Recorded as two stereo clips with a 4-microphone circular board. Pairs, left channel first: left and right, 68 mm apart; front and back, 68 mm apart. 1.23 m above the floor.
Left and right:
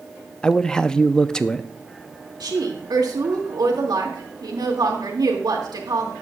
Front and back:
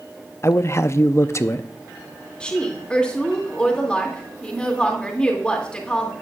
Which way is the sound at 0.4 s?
15° left.